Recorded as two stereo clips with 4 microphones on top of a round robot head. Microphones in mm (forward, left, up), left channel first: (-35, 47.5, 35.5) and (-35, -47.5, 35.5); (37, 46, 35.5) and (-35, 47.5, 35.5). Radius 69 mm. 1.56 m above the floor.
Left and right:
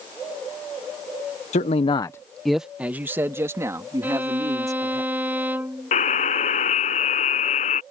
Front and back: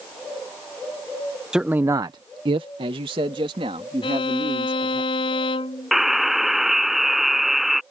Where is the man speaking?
95° left; by 5.0 s 145° right.